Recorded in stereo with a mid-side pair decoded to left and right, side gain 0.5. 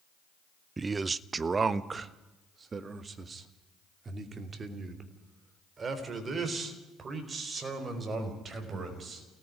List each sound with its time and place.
0.8 s a man speaking: 25° right, 0.7 m; by 9.3 s 35° right, 6 m